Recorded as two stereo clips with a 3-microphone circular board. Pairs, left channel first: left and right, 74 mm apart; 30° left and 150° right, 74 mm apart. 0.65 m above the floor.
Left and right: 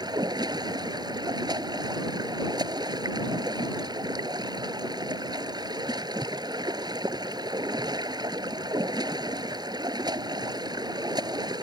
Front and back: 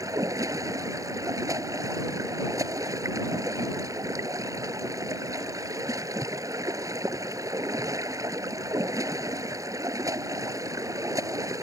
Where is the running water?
110° right.